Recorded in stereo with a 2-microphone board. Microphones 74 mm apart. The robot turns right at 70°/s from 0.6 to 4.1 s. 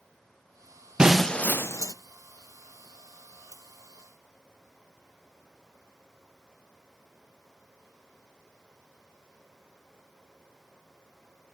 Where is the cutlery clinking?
45° right (ahead or behind), 1.4 m; by 3.6 s 50° right (ahead or behind), 1.4 m.